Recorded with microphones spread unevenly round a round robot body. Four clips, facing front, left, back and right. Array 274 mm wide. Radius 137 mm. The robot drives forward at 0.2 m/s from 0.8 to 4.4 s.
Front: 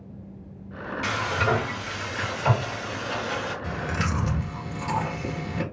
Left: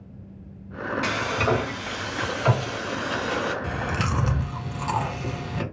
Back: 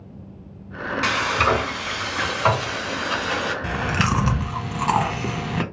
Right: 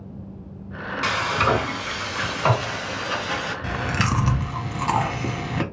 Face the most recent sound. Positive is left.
turn(degrees=-150)